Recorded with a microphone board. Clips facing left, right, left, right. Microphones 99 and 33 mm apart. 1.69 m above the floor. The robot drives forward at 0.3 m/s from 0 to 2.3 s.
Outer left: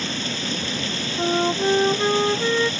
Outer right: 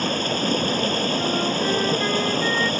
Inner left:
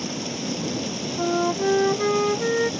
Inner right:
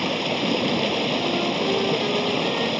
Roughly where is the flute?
Left.